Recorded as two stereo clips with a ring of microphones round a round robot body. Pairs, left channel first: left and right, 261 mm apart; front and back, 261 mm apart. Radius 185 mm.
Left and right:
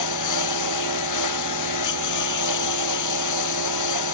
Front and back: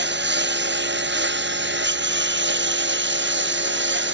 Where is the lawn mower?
135° left.